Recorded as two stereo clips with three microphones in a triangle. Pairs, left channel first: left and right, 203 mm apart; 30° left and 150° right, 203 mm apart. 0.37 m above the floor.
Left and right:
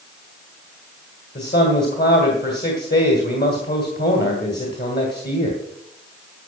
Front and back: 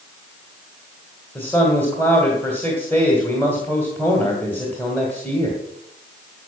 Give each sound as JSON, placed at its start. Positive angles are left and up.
{"t": 1.4, "sound": "a man speaking", "azimuth_deg": 110, "distance_m": 2.0}